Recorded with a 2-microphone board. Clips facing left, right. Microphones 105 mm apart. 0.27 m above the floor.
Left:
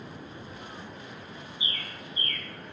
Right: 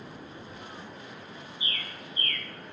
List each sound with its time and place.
1.6 s a bird: 15° left (ahead or behind), 0.9 m